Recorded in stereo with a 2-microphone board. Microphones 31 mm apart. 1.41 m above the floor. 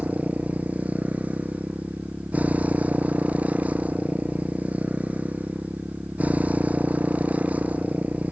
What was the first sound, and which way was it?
A motorcycle, 55° right (ahead or behind).